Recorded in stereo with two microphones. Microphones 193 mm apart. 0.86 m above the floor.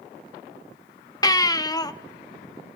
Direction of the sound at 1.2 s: 20° left (ahead or behind).